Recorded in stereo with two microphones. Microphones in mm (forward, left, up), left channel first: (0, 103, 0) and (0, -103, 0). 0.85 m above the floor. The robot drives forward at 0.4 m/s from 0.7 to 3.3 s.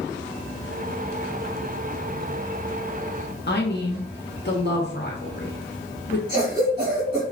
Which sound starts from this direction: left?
A woman speaking, at 3.5 s.